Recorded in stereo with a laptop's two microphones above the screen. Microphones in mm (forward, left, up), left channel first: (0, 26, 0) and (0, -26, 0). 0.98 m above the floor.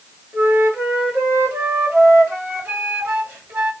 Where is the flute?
40° right (ahead or behind), 1.9 m.